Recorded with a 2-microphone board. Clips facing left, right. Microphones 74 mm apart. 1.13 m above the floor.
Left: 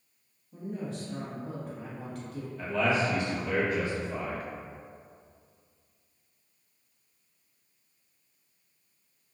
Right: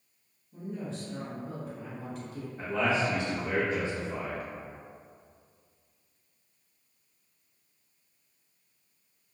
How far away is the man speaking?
About 0.9 m.